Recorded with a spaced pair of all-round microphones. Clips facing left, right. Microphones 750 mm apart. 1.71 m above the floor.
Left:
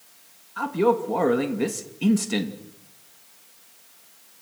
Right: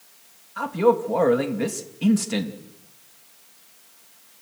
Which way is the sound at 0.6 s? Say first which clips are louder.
Right 2 dB; 10° right (ahead or behind).